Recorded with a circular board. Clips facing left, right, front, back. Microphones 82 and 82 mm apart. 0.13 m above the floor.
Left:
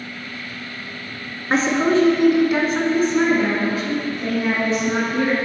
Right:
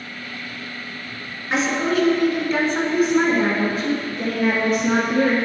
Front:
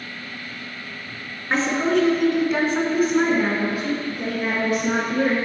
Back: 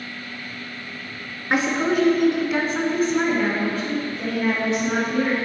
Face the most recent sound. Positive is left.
turn(degrees=-70)